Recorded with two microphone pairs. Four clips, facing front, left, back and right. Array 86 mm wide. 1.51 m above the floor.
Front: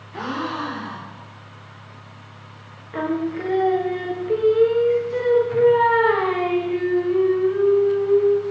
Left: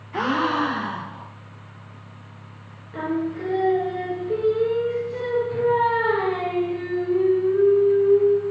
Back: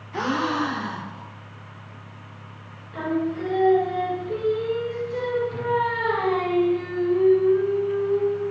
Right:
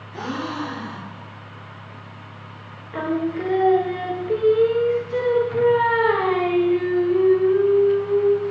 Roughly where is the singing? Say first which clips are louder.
Right 2 dB, front 2 dB; ahead right.